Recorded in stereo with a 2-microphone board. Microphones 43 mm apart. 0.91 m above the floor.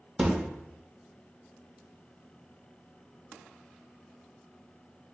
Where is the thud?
10° right (ahead or behind), 0.6 m.